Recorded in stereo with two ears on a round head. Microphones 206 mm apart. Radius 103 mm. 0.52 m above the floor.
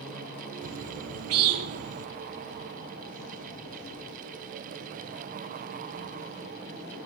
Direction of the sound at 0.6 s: 75° right (ahead or behind).